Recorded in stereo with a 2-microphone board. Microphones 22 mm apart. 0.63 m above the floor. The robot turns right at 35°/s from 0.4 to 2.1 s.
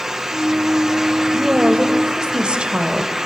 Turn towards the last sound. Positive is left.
turn(degrees=-50)  # may be behind; listen again after turning